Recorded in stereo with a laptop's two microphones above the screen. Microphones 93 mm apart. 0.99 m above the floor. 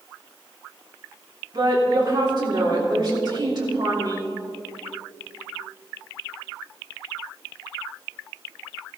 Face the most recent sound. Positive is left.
turn(degrees=-50)  # may be behind; listen again after turning